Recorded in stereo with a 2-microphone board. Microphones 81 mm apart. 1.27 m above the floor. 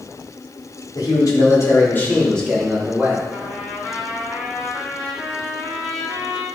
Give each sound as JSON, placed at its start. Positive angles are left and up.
{"t": 0.9, "sound": "a man speaking", "side_deg": 55, "distance_m": 2.5}
{"t": 3.3, "sound": "a trumpet", "side_deg": 10, "distance_m": 2.0}